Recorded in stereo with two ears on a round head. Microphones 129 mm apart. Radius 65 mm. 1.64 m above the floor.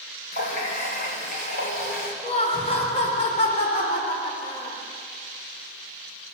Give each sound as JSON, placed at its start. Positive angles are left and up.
{"t": 0.3, "sound": "a running tap", "side_deg": 60, "distance_m": 5.5}
{"t": 2.2, "sound": "laughter", "side_deg": 45, "distance_m": 5.0}